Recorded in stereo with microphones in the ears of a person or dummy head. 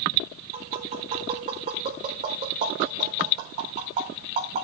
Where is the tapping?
40° right (ahead or behind), 4.5 m.